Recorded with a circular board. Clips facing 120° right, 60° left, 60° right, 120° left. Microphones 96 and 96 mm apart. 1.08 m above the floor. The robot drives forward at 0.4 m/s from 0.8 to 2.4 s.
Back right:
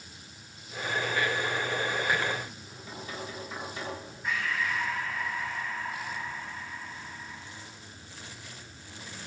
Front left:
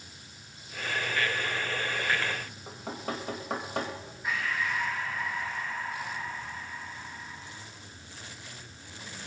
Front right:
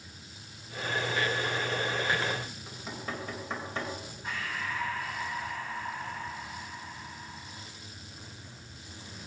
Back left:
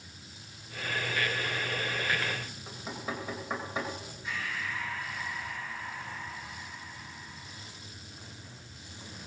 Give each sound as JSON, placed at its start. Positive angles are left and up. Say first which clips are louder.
{"t": 2.7, "sound": "knocking", "louder": "front left 6 dB, back left 4 dB", "azimuth_deg": 40, "distance_m": 3.5}
{"t": 4.2, "sound": "breathing", "louder": "even, front right 1 dB", "azimuth_deg": -25, "distance_m": 5.5}